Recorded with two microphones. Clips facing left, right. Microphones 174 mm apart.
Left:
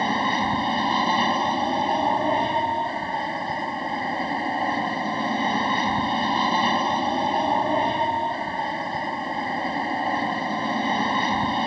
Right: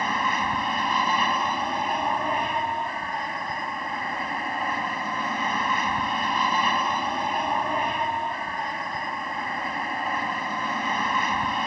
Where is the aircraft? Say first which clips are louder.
Left 4 dB; 30° left (ahead or behind).